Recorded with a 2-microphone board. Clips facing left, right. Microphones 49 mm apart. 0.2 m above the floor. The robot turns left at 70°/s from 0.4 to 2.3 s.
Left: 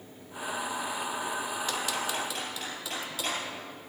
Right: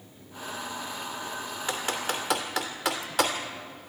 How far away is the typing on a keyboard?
About 2.5 m.